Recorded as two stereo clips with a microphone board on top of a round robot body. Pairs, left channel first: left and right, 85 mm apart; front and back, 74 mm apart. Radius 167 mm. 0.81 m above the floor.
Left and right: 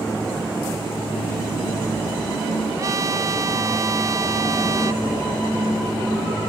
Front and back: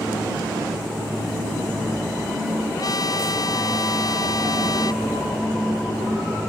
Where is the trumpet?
35° right.